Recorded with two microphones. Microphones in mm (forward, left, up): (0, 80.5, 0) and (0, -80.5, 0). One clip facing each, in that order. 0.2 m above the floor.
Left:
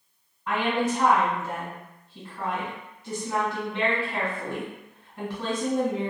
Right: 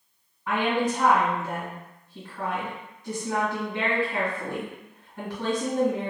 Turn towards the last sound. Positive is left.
turn(degrees=-10)  # may be behind; listen again after turning